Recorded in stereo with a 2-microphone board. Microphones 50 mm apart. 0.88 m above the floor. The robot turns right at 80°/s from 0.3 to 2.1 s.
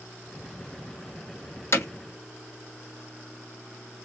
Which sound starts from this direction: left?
Hammering, at 1.7 s.